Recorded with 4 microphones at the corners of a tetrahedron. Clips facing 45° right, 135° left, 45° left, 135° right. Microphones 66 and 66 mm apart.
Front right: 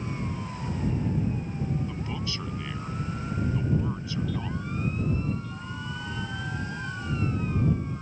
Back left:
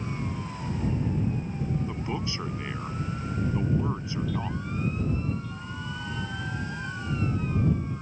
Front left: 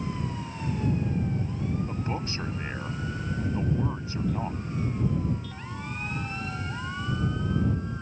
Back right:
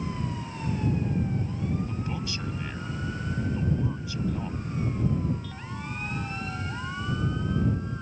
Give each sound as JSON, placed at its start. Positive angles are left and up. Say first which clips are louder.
{"t": 1.9, "sound": "a man speaking", "louder": "back left 2 dB, front left 1 dB", "azimuth_deg": 80}